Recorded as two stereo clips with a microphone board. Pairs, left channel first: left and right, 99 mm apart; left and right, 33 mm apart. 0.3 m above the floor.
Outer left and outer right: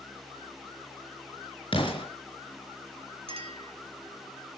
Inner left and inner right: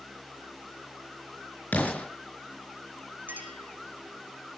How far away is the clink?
About 3 m.